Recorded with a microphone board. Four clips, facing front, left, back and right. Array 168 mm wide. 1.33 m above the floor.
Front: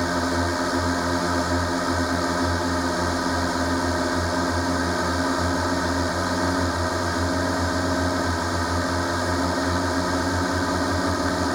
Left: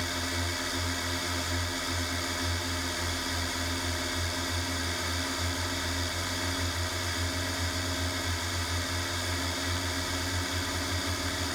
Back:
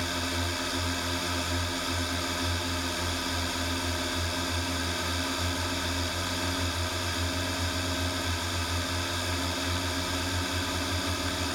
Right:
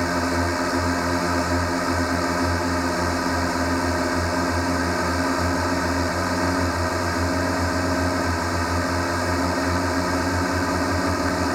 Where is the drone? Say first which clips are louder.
Right 13 dB, front 10 dB; 50° right.